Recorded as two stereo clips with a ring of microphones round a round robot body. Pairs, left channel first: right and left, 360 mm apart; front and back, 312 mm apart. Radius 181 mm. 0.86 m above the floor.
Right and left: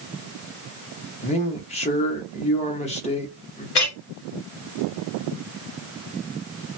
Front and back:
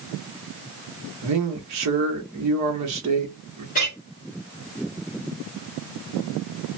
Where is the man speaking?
160° right, 0.9 m.